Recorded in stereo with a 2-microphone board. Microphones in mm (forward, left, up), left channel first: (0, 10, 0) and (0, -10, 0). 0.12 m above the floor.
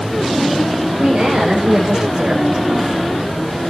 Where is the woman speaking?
50° right (ahead or behind), 8 m.